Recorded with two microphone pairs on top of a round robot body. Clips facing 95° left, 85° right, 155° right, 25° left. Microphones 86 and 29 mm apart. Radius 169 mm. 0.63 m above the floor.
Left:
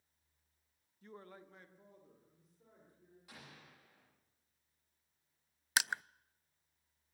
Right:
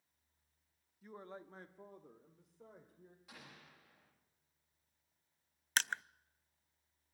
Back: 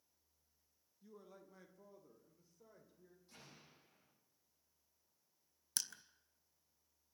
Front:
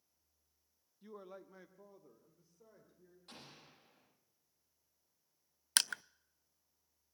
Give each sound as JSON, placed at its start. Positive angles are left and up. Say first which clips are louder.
{"t": 1.0, "sound": "a man speaking", "louder": "right 3 dB, front 7 dB", "azimuth_deg": -5, "distance_m": 1.0}
{"t": 3.3, "sound": "an explosion", "louder": "left 2 dB, front 6 dB", "azimuth_deg": 5, "distance_m": 9.0}
{"t": 5.8, "sound": "crushing", "louder": "left 1 dB, front 11 dB", "azimuth_deg": 5, "distance_m": 0.5}